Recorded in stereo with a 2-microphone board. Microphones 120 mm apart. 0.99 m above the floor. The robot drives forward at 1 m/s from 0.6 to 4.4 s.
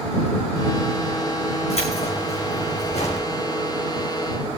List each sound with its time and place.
1.7 s keys jangling: 60° left (ahead or behind), 7 m; by 3.3 s 70° left (ahead or behind), 6.5 m